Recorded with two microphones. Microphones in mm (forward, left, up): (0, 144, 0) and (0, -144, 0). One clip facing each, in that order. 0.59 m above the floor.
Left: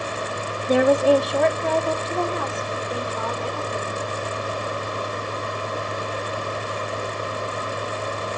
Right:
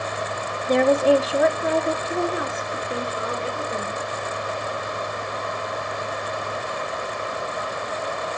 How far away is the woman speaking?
About 0.7 m.